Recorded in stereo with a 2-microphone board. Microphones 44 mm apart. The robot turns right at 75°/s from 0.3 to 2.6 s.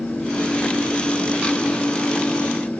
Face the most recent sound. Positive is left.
No sound to turn to.